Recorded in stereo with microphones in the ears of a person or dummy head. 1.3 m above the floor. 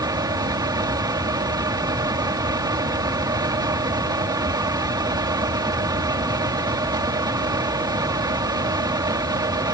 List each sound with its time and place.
0.0 s a fan: 20° right (ahead or behind)